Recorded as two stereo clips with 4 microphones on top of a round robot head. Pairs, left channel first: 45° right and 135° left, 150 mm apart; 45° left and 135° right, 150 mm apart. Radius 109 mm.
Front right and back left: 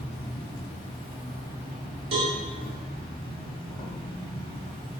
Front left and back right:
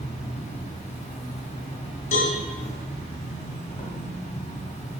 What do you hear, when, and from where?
0.0 s an insect: 5° left, 0.9 m
2.1 s a cowbell: 80° left, 0.7 m